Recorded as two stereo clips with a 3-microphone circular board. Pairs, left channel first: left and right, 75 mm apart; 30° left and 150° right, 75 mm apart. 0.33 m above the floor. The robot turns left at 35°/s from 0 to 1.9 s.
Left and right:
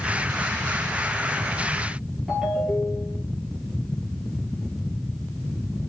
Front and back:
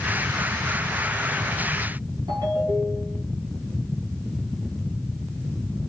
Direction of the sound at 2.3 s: Straight behind.